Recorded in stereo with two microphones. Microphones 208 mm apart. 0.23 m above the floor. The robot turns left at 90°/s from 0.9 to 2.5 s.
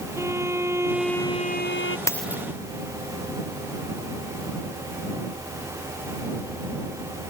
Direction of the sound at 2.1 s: 15° left (ahead or behind).